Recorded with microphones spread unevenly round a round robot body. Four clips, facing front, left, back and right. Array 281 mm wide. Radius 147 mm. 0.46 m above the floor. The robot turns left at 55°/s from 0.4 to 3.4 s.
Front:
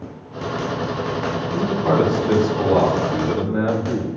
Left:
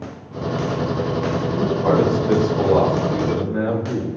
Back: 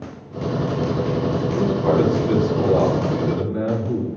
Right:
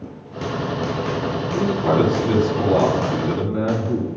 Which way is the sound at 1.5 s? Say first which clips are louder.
Even, front 1 dB; 120° left.